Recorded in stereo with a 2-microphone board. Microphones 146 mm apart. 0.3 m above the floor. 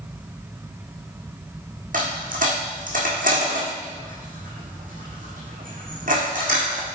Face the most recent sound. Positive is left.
turn(degrees=-70)  # may be behind; listen again after turning